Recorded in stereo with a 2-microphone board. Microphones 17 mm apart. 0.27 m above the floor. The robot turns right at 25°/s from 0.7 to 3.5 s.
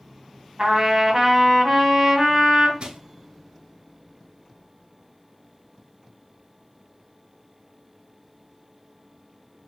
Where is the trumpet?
45° right, 1.8 m; by 2.7 s 5° left, 1.8 m.